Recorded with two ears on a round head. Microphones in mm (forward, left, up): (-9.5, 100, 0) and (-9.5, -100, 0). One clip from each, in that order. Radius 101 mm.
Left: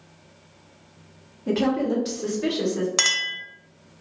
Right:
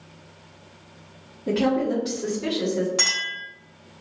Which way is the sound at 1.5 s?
15° left (ahead or behind).